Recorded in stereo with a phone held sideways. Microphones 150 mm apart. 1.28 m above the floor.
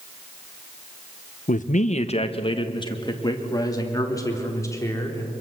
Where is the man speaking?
65° left (ahead or behind), 1.0 m; by 5.3 s 20° left (ahead or behind), 4.5 m.